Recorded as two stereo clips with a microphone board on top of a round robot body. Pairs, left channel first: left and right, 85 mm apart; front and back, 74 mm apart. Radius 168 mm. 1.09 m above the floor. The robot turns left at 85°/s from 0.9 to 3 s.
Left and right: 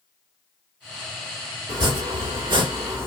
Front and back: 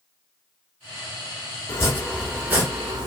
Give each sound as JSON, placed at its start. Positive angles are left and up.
{"t": 1.7, "sound": "chopping", "azimuth_deg": -40, "distance_m": 3.5}